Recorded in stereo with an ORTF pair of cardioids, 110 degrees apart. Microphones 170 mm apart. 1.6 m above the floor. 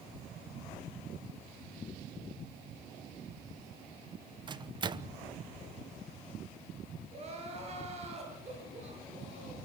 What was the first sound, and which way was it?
A microwave, 25° right.